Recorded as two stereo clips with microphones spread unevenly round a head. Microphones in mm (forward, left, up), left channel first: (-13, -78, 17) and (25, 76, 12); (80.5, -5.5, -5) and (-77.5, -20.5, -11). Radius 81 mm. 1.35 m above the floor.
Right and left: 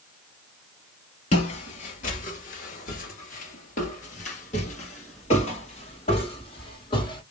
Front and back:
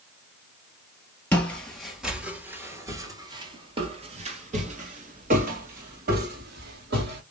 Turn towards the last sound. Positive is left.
turn(degrees=-160)